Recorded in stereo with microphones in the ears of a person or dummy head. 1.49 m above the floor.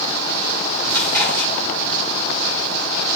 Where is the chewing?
15° left (ahead or behind), 3 m.